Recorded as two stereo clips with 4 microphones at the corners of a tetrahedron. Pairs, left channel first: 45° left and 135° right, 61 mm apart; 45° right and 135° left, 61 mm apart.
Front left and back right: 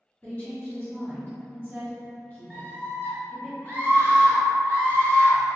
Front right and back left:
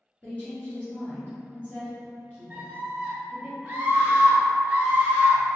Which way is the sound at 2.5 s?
85° left.